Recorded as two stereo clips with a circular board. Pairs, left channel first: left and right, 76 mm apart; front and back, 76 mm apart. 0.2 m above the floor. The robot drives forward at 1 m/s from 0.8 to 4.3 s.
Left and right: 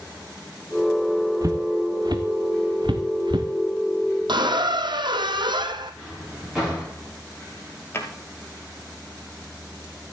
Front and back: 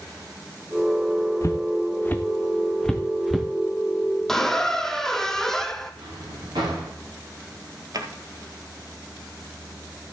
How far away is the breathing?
No breathing in this recording.